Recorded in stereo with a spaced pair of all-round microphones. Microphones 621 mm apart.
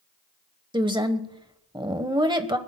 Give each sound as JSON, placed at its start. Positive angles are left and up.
{"t": 0.7, "sound": "a woman speaking", "side_deg": -10, "distance_m": 1.1}